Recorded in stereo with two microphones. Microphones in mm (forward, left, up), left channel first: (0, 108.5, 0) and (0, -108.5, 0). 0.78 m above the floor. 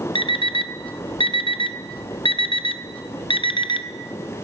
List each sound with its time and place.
0.1 s an alarm clock: 25° left (ahead or behind), 0.5 m